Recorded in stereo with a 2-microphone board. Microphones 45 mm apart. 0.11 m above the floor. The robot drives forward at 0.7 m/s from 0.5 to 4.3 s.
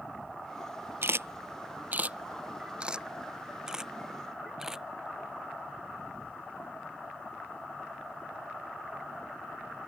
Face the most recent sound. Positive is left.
turn(degrees=-10)  # may be behind; listen again after turning